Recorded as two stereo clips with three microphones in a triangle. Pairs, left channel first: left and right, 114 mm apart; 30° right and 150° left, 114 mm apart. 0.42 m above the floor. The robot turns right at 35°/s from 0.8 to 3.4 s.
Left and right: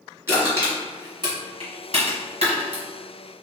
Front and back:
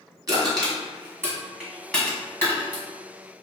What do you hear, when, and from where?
0.3 s crushing: 155° right, 1.8 m; by 2.8 s 85° right, 1.8 m